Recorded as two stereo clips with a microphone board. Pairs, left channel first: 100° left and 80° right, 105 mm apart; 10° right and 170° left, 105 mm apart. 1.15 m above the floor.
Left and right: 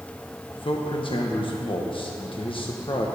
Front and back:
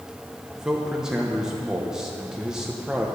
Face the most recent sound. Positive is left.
turn(degrees=85)